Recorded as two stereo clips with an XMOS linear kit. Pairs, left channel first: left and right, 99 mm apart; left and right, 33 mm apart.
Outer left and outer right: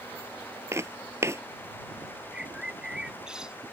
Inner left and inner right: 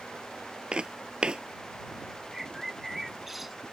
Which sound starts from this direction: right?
Footsteps, at 0.7 s.